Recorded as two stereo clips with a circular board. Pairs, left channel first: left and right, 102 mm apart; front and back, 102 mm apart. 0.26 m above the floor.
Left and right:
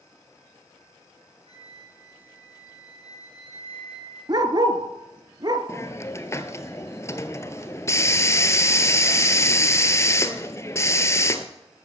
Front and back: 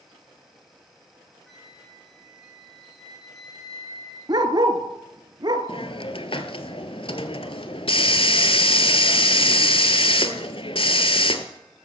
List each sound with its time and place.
1.5 s a flute: 90° right, 4.5 m
4.3 s a dog barking: 135° right, 1.2 m
5.7 s a hiss: 25° left, 1.0 m